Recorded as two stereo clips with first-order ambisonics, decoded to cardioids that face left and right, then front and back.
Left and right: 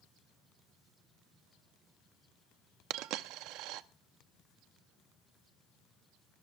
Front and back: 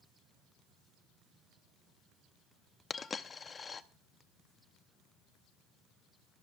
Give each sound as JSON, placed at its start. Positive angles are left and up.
{"t": 2.9, "sound": "a dropped coin", "azimuth_deg": -70, "distance_m": 0.7}